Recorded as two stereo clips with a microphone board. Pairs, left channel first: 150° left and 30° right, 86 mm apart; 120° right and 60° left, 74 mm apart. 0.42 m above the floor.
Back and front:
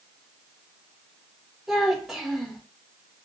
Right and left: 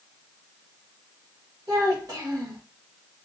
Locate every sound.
1.7 s a child speaking: 55° left, 1.1 m